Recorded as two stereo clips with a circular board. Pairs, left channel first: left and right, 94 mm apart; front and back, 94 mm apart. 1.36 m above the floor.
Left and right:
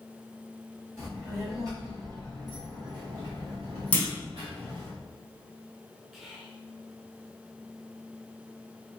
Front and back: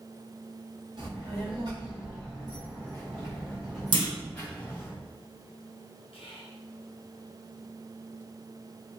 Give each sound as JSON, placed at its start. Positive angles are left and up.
{"t": 1.0, "sound": "a child speaking", "azimuth_deg": -150, "distance_m": 1.8}
{"t": 3.9, "sound": "a clunk", "azimuth_deg": 165, "distance_m": 0.8}
{"t": 6.1, "sound": "whispering", "azimuth_deg": 0, "distance_m": 1.1}